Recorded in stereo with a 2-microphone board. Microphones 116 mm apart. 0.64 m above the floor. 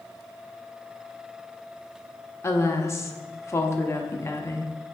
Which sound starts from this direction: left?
A woman speaking, at 2.4 s.